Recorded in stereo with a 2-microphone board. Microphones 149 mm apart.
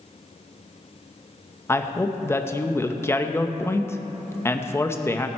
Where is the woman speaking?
15° left (ahead or behind), 0.8 m.